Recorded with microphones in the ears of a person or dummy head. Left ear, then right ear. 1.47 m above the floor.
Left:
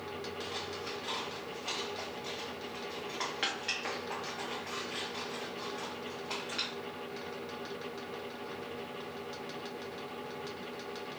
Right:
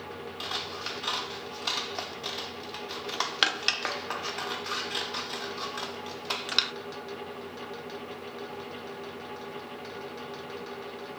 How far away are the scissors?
About 0.6 m.